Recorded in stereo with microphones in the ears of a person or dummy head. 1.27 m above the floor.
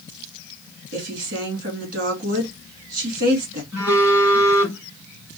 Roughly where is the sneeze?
No sneeze in this recording.